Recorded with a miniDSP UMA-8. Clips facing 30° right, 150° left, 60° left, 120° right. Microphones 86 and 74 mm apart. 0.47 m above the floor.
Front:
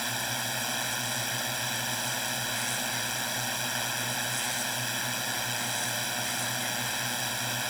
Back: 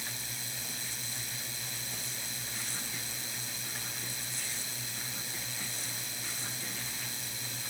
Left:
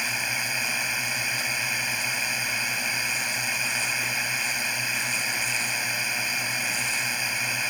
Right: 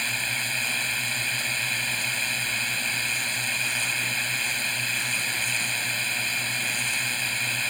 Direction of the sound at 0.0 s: 15° right.